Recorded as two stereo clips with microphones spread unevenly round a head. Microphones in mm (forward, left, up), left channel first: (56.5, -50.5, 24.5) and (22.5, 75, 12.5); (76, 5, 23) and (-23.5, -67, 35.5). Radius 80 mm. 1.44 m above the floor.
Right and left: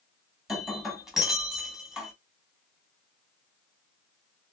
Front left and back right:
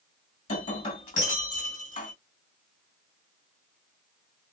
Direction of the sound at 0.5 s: 15° left.